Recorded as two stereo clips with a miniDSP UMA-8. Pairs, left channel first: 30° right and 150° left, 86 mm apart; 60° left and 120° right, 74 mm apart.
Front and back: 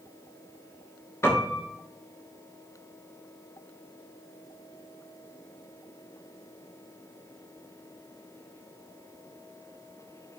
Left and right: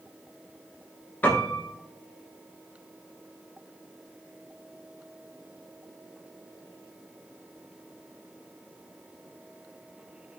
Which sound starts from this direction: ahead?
A piano, at 1.2 s.